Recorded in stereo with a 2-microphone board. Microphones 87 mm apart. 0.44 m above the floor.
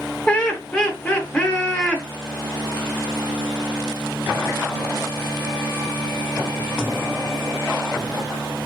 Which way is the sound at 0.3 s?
10° left (ahead or behind).